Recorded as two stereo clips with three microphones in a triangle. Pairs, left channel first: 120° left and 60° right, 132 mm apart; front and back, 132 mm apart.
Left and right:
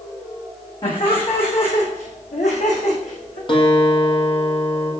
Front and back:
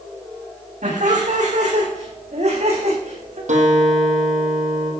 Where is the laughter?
165° left, 6.5 m; by 3.4 s 145° left, 8.5 m.